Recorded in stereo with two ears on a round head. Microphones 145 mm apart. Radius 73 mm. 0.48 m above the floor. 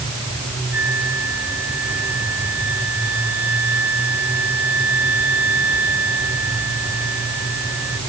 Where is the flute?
10° right (ahead or behind).